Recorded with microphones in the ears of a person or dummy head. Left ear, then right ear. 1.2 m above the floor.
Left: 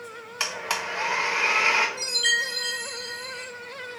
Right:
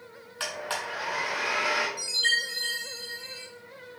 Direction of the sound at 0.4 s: 20° left (ahead or behind).